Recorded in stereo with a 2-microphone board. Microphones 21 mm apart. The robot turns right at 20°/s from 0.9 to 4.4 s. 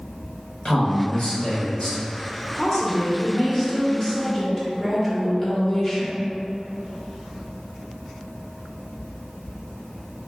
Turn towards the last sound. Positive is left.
turn(degrees=20)  # may be behind; listen again after turning